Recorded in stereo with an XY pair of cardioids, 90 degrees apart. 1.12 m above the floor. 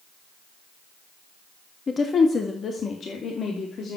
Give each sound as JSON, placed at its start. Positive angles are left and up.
{"t": 1.9, "sound": "a woman speaking", "azimuth_deg": 45, "distance_m": 1.7}